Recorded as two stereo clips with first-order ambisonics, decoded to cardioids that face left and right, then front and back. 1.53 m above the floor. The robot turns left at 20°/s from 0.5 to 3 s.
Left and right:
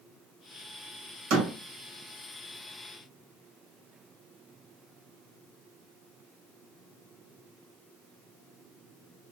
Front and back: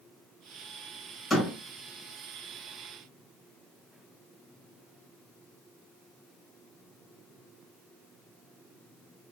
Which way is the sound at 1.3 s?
85° right.